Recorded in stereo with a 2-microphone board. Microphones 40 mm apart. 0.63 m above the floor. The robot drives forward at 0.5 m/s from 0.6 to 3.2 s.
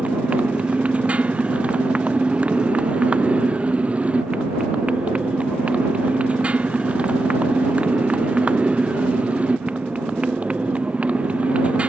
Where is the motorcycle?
30° right (ahead or behind).